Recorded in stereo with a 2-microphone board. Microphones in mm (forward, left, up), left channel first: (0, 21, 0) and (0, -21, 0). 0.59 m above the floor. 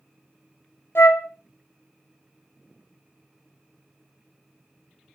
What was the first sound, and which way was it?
A flute, 75° left (ahead or behind).